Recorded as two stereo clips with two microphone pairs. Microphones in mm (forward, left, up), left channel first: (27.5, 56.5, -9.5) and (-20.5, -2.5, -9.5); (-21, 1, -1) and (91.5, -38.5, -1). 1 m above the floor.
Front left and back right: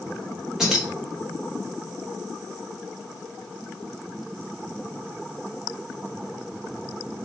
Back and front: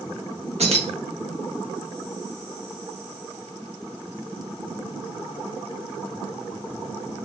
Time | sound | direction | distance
0.6 | keys jangling | 45° right | 1.0 m